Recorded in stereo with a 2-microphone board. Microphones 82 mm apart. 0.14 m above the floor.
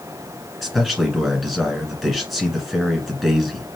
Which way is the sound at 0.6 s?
Centre (ahead or behind).